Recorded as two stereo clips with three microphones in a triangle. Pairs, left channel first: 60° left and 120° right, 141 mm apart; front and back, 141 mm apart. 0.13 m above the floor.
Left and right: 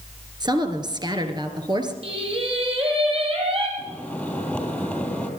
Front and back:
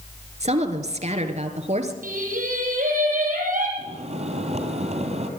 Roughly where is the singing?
Behind.